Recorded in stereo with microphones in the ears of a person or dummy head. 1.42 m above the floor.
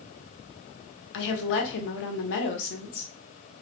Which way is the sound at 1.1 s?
65° left (ahead or behind).